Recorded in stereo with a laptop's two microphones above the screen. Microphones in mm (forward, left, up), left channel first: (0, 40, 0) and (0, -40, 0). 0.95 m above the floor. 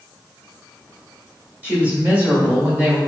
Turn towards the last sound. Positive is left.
turn(degrees=-20)  # may be behind; listen again after turning